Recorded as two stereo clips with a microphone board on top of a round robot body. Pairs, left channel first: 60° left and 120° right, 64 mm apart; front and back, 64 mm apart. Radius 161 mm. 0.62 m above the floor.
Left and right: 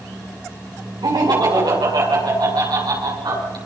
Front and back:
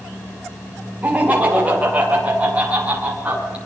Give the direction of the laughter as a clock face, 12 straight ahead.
4 o'clock.